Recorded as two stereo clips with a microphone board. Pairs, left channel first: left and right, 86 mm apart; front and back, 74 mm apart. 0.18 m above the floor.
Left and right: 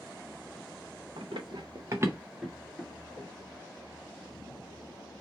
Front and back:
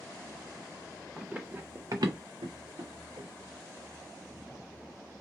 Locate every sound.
1.2 s running footsteps: 100° right, 1.1 m; by 3.3 s 155° left, 1.6 m